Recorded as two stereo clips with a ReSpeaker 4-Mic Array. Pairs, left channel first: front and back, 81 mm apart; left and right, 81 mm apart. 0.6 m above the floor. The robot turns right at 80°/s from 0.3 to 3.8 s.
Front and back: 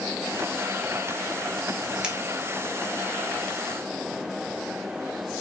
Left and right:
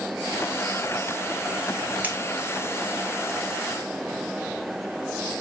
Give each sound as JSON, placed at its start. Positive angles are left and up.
{"t": 2.0, "sound": "scissors", "azimuth_deg": -120, "distance_m": 0.7}